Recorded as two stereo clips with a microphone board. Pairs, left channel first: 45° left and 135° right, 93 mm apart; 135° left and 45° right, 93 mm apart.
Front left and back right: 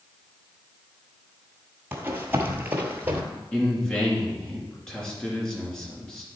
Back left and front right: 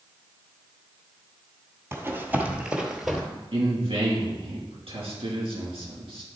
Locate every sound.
1.9 s running footsteps: 80° right, 1.4 m; by 3.2 s 145° right, 1.3 m
3.5 s a man speaking: 35° right, 2.5 m